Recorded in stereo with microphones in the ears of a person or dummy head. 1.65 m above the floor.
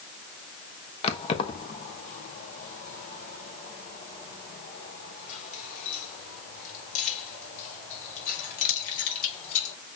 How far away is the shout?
I don't hear a shout.